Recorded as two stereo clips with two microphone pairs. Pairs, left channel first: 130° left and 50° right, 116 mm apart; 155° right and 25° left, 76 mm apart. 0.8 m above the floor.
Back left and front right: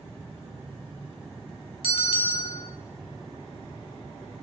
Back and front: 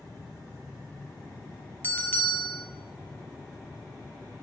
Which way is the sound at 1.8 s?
145° left.